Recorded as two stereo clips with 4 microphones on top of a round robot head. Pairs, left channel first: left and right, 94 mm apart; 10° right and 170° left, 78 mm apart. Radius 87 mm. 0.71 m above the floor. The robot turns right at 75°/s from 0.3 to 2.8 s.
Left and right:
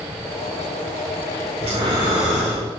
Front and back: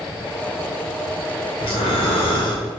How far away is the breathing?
About 0.5 m.